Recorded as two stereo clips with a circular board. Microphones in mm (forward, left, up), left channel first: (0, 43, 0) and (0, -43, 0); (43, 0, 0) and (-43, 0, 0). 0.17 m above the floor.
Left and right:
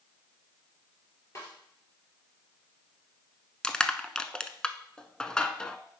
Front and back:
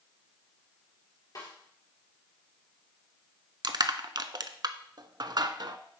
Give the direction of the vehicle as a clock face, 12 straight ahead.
I don't hear a vehicle.